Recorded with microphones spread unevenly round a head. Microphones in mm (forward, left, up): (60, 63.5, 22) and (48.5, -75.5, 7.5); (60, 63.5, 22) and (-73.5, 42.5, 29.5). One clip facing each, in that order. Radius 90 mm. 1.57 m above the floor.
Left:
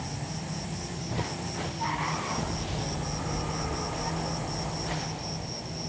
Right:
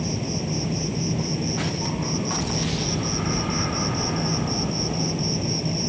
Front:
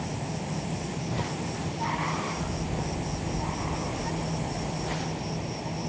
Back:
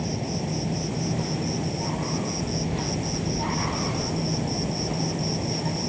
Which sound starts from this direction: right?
An insect, at 0.0 s.